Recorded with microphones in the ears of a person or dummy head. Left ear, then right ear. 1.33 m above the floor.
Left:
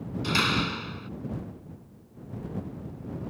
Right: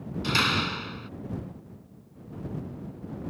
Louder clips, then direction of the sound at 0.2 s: Right 1 dB; 5° right (ahead or behind).